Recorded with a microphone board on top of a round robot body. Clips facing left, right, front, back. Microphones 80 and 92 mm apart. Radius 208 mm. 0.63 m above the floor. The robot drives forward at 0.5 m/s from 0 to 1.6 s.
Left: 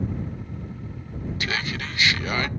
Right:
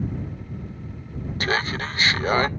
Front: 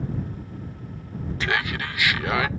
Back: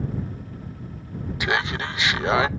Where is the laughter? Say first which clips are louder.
Right 6 dB, back 2 dB; 110° right, 0.6 m; by 2.5 s 125° right, 0.6 m.